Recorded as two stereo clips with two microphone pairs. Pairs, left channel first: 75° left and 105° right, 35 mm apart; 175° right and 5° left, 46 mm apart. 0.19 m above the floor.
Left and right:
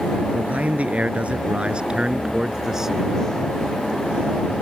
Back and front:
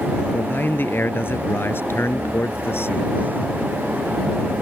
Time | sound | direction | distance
0.3 | a man speaking | 140° right | ?